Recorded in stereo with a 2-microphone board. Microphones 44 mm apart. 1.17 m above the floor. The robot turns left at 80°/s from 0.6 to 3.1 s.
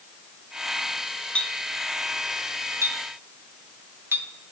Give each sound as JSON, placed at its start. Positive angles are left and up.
{"t": 1.4, "sound": "a clink", "side_deg": 25, "distance_m": 0.8}